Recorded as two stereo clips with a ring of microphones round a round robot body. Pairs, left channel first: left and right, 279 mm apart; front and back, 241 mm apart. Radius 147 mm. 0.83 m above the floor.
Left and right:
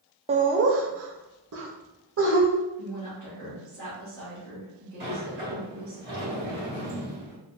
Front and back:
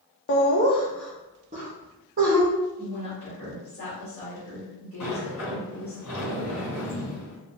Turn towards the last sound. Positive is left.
turn(degrees=-35)